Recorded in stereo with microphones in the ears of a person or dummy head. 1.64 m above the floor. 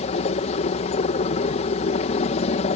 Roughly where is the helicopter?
Left.